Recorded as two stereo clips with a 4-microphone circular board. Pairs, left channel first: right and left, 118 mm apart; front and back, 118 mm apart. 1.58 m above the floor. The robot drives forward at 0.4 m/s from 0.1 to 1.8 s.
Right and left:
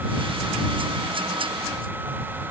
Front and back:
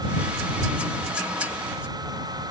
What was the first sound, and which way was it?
Only background noise.